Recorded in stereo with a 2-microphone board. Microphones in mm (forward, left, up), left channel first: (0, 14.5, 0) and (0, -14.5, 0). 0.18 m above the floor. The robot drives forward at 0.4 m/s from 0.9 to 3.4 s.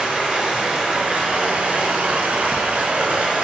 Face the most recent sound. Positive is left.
turn(degrees=-45)  # may be behind; listen again after turning